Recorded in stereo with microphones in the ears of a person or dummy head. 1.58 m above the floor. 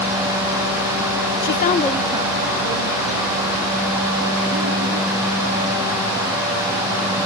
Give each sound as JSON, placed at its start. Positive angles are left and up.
{"t": 1.4, "sound": "a woman speaking", "side_deg": 60, "distance_m": 0.6}